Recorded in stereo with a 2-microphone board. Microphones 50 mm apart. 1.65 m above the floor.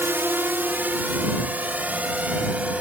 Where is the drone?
45° right (ahead or behind); by 2.8 s 25° right (ahead or behind).